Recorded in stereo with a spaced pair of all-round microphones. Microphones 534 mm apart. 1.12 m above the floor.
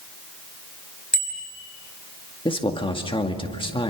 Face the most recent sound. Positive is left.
turn(degrees=10)  # may be behind; listen again after turning